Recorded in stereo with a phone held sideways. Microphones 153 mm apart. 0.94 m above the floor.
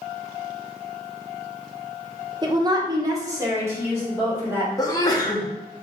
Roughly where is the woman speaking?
Right.